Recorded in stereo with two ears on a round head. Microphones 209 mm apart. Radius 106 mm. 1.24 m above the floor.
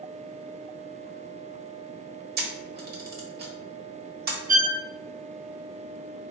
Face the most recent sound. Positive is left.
turn(degrees=-40)  # may be behind; listen again after turning